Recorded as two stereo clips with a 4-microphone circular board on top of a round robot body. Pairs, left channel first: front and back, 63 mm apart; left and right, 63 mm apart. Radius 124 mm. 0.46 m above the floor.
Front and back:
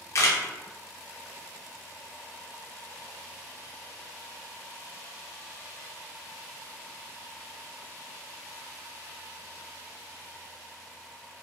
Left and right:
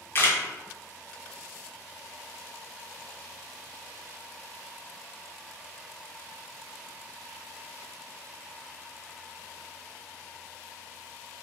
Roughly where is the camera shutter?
Ahead left.